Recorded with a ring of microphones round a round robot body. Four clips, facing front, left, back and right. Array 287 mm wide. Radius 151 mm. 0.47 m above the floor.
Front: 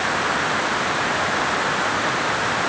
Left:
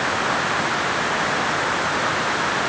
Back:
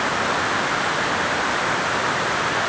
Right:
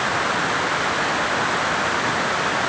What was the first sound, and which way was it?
Only background noise.